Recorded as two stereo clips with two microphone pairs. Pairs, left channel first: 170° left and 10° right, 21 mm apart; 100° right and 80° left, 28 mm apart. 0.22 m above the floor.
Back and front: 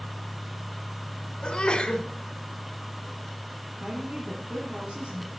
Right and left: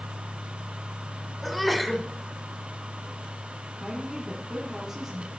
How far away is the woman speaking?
About 2.5 m.